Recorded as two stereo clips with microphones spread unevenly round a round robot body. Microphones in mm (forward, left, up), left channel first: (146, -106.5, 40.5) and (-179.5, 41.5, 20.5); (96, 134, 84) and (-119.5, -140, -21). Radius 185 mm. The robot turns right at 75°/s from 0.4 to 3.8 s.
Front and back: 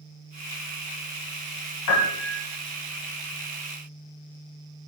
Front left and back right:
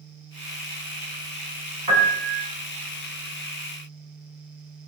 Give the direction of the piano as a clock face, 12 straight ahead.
2 o'clock.